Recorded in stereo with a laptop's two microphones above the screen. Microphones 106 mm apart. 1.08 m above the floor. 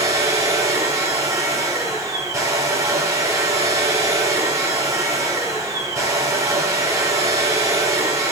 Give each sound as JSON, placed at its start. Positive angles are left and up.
{"t": 0.0, "sound": "a machine running", "side_deg": -30, "distance_m": 4.0}